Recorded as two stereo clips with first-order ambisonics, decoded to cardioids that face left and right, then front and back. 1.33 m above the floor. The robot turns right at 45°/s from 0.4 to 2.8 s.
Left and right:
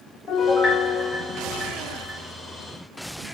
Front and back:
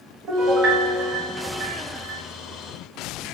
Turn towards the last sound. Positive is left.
turn(degrees=-115)